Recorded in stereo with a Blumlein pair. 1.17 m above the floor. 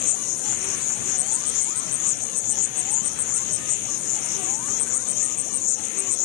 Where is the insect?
45° left.